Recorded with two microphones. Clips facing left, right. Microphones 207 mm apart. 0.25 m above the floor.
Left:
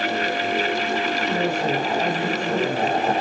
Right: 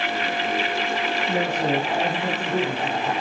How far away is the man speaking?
About 6.5 m.